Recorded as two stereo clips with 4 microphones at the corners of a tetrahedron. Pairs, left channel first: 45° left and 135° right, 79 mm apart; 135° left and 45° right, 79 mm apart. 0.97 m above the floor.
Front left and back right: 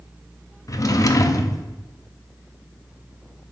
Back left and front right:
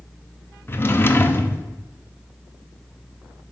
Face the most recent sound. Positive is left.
turn(degrees=80)